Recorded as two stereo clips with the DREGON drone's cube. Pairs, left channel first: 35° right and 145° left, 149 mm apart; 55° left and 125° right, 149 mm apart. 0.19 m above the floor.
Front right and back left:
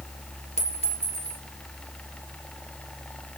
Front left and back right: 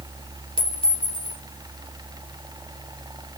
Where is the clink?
5° left, 1.6 m.